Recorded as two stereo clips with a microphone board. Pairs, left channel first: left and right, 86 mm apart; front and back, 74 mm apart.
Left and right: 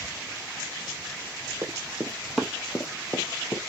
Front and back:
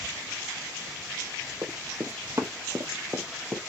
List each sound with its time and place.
1.6 s running footsteps: 130° right, 1.1 m; by 3.6 s 115° left, 1.4 m